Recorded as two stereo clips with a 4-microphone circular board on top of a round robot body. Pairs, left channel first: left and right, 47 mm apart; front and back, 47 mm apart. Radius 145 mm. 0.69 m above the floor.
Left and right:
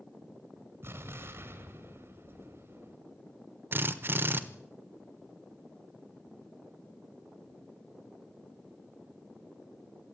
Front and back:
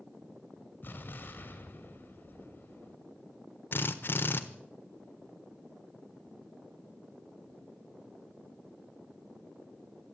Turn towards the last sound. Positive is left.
turn(degrees=-45)